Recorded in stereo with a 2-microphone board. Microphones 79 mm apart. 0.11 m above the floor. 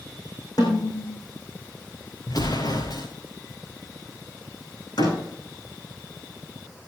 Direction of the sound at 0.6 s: 50° left (ahead or behind).